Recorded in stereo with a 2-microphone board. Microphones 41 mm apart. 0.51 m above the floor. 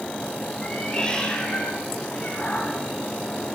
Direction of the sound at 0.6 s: 20° left (ahead or behind).